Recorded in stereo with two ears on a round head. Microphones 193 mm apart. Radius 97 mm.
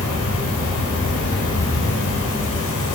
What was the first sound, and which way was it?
An insect, 65° left (ahead or behind).